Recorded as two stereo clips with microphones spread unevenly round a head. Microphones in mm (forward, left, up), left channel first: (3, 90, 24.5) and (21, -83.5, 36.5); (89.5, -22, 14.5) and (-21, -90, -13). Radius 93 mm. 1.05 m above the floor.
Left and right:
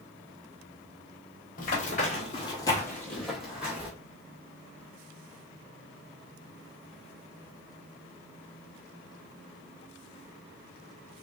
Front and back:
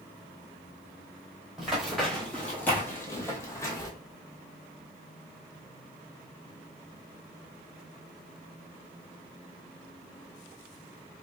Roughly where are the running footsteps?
Left.